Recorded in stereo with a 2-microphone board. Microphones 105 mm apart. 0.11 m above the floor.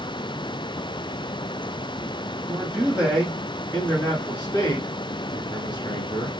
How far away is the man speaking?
About 1.9 m.